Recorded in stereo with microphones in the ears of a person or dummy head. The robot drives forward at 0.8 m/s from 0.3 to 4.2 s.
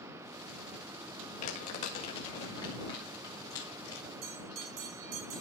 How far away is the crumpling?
About 1.8 m.